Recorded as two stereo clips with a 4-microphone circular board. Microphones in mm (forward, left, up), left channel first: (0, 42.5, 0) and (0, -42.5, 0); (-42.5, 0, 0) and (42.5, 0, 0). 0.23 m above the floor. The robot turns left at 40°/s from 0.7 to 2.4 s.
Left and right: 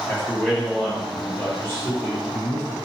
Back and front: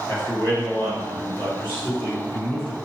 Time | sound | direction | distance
0.1 | a man speaking | straight behind | 1.5 m